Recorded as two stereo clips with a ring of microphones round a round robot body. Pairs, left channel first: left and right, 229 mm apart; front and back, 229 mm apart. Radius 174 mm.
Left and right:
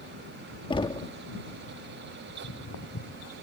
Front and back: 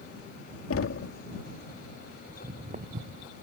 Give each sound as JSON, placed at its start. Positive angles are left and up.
{"t": 0.7, "sound": "knocking", "azimuth_deg": 20}
{"t": 2.3, "sound": "footsteps", "azimuth_deg": 115}